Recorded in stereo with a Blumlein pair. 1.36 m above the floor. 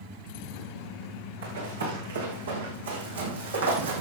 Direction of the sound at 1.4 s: 70° right.